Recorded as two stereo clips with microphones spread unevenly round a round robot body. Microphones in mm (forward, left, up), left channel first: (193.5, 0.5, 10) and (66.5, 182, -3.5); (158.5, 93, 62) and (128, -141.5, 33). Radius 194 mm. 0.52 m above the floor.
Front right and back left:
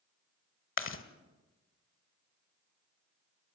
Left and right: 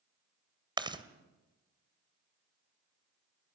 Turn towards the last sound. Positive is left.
turn(degrees=-25)